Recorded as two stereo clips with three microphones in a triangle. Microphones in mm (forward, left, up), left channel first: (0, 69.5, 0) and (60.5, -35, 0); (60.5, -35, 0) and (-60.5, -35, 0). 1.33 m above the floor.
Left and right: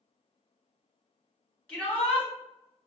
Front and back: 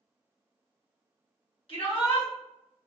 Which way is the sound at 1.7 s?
40° left.